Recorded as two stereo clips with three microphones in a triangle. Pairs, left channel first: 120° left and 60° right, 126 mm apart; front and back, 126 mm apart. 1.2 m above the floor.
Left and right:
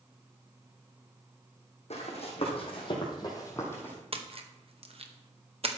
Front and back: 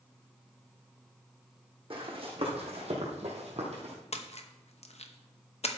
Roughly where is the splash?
Ahead right.